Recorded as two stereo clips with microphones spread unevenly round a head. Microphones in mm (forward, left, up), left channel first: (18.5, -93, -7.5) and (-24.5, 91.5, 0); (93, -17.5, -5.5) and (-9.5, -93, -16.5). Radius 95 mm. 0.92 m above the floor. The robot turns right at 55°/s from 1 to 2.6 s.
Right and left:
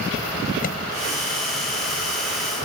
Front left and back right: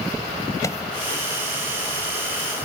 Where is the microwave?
30° right.